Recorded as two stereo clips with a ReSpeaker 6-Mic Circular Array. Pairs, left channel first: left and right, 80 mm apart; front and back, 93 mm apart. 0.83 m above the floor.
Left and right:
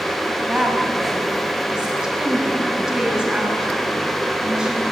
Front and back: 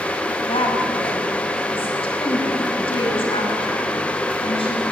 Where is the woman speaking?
10° right, 5.5 m.